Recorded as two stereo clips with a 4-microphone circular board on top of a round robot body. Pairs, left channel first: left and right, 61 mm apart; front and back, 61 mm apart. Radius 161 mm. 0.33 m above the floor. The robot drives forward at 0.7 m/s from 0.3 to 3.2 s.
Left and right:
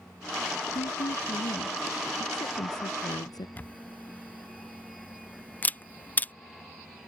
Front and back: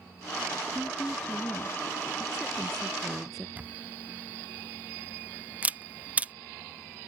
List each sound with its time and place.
0.8 s a woman speaking: 75° left; by 3.5 s 90° left
3.6 s a camera shutter: 130° left